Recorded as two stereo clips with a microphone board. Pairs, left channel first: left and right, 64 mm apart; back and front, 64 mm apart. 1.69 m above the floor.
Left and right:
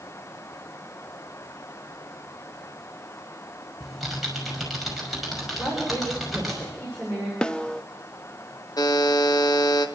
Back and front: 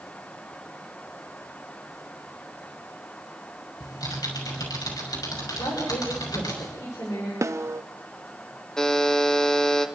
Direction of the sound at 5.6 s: 160° left.